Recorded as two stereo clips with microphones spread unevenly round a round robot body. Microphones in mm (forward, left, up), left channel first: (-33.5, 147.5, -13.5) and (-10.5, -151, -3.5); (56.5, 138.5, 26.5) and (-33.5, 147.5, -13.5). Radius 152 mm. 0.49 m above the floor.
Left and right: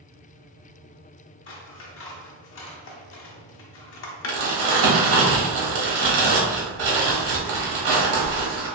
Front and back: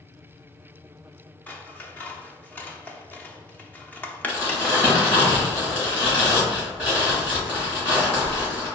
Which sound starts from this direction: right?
Crumpling, at 4.3 s.